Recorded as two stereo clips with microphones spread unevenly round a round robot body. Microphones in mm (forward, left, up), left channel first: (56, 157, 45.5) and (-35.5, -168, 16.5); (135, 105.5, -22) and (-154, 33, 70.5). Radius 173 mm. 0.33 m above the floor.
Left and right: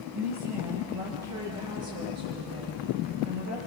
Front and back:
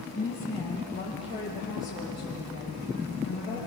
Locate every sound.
0.1 s a woman speaking: 65° right, 5 m; by 3.6 s 60° right, 8 m